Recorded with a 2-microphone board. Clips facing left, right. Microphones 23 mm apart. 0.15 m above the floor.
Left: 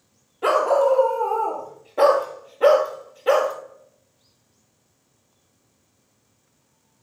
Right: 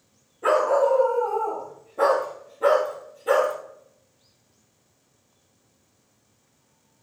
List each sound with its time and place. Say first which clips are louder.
0.4 s a dog barking: left 2 dB; 70° left (ahead or behind), 1.9 m; by 3.5 s 40° left (ahead or behind), 1.7 m